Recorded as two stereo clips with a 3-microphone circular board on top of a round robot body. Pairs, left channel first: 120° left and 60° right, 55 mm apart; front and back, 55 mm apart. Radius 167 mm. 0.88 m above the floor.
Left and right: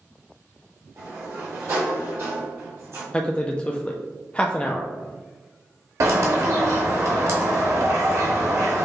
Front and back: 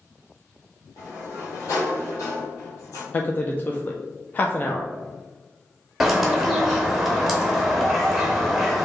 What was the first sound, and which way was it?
A sliding door, 25° right.